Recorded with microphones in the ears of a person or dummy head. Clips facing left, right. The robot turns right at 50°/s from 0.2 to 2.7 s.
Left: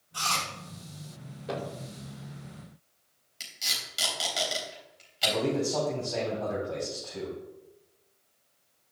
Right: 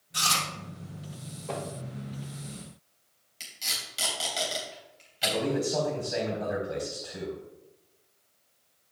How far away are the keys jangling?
I don't hear keys jangling.